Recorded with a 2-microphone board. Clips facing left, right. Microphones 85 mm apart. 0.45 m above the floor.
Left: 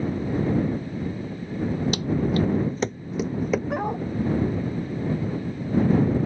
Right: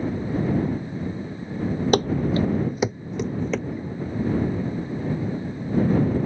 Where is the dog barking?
65° left (ahead or behind).